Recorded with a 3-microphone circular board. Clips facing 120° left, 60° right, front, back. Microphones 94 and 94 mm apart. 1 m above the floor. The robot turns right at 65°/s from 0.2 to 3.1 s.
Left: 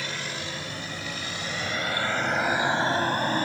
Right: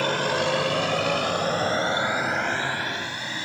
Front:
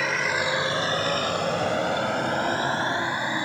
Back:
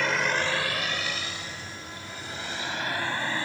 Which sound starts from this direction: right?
A vehicle, at 0.0 s.